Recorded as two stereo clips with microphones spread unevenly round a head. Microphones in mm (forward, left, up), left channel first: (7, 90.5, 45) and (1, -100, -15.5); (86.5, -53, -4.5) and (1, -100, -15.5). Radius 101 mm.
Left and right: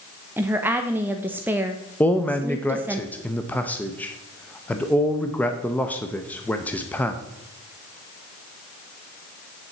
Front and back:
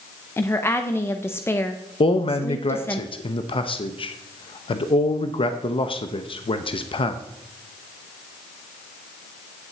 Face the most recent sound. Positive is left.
turn(degrees=0)